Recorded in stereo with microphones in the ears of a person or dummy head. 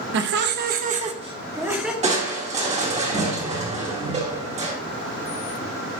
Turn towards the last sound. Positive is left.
turn(degrees=-35)  # may be behind; listen again after turning